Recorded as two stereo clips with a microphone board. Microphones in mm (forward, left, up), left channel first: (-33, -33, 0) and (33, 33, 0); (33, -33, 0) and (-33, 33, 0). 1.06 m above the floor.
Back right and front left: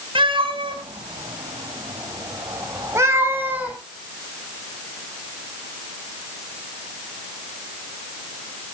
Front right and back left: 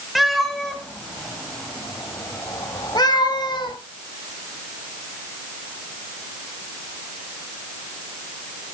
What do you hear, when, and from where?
0.1 s a cat meowing: 45° left, 3.5 m; by 3.8 s 25° right, 3 m